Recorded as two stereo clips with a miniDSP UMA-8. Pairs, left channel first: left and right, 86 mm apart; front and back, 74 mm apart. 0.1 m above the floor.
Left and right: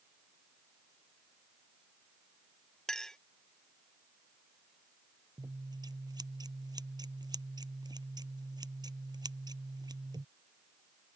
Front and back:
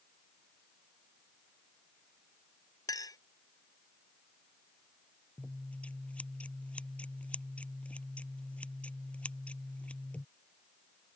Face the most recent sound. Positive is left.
turn(degrees=-70)